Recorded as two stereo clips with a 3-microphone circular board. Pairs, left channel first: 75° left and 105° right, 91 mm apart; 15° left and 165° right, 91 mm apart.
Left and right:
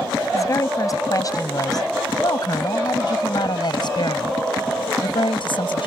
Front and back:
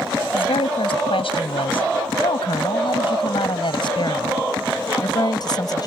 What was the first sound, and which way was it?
A woman speaking, 20° left.